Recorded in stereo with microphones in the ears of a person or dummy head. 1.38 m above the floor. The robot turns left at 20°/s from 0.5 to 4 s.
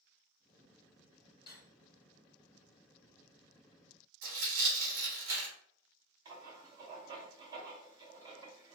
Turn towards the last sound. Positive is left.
turn(degrees=-20)  # may be behind; listen again after turning